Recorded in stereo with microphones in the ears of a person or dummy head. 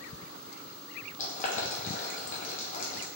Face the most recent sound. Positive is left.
turn(degrees=55)  # may be behind; listen again after turning